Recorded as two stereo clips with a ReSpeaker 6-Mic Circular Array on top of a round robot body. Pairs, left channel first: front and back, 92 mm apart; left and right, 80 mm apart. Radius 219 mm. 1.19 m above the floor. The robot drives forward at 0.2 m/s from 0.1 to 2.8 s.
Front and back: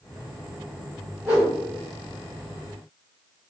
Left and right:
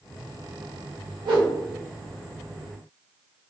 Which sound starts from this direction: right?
A whoosh, at 1.2 s.